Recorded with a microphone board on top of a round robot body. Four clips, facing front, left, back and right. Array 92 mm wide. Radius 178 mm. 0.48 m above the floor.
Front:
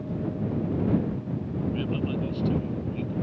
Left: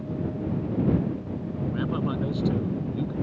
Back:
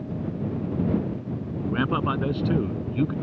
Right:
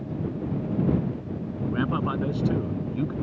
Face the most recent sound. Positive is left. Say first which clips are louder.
# right 2 dB, back 6 dB
turn(degrees=-160)